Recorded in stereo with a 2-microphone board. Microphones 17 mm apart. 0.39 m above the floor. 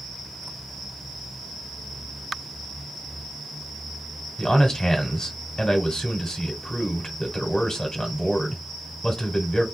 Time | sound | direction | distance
4.4 | a man speaking | 40° left (ahead or behind) | 1.0 m